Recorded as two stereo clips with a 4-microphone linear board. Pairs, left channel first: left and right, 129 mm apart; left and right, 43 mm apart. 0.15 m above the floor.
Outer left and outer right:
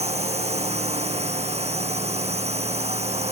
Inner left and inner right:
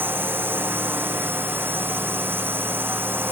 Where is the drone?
55° right (ahead or behind).